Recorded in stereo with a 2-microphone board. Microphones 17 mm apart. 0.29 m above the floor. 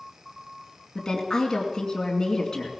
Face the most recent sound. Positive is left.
turn(degrees=35)  # may be behind; listen again after turning